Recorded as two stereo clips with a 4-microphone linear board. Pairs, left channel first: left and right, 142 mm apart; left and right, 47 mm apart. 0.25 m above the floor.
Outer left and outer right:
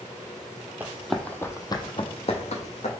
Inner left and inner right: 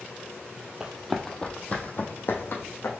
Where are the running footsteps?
15° right (ahead or behind), 0.6 m; by 2.9 s 60° left (ahead or behind), 1.1 m.